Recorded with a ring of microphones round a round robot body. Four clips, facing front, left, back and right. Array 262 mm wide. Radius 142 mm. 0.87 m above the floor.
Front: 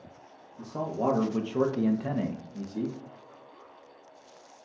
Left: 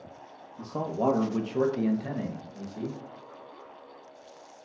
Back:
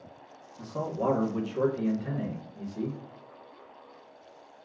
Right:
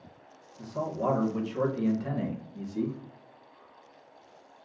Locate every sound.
0.6 s a man speaking: 70° left, 1.1 m; by 3.0 s 30° right, 1.1 m